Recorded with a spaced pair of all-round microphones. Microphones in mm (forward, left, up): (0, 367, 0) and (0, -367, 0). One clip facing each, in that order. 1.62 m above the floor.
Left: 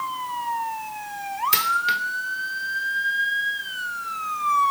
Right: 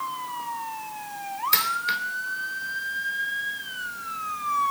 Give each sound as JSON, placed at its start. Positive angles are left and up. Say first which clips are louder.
{"t": 1.5, "sound": "a dropped coin", "louder": "left 3 dB", "side_deg": 55, "distance_m": 2.5}